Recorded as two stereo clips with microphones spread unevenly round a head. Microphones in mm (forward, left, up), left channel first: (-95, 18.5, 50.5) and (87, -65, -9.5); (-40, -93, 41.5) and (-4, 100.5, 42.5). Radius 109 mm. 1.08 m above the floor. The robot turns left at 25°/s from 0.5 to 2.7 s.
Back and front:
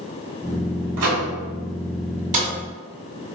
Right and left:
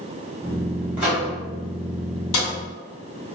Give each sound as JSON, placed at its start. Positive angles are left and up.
{"t": 1.0, "sound": "a microwave", "azimuth_deg": -5, "distance_m": 1.4}
{"t": 2.3, "sound": "a snare drum", "azimuth_deg": -85, "distance_m": 1.9}